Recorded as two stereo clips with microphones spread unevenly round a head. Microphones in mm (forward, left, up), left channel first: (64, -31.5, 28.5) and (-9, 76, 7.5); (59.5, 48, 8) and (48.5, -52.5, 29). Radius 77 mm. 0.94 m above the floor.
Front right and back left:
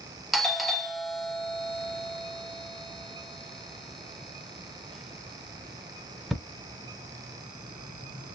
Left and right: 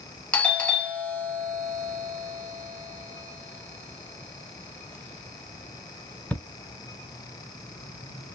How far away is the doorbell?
About 0.7 m.